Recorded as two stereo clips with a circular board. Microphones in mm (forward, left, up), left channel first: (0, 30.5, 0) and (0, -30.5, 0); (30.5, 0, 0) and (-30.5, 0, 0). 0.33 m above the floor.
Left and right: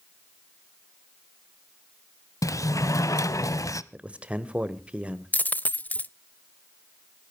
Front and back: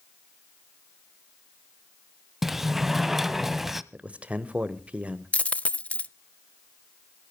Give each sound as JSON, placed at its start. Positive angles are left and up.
{"t": 2.4, "sound": "a sliding door", "azimuth_deg": 95, "distance_m": 0.6}
{"t": 3.9, "sound": "a man speaking", "azimuth_deg": -130, "distance_m": 1.1}
{"t": 5.3, "sound": "a dropped coin", "azimuth_deg": 50, "distance_m": 0.6}